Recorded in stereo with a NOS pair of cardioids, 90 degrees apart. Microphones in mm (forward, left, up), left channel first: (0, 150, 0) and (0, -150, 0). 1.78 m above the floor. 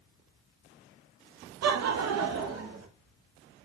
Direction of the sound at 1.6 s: 60° right.